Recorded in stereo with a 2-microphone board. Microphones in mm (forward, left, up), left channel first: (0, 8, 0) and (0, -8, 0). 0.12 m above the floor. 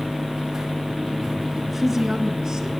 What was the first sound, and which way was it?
A woman speaking, centre (ahead or behind).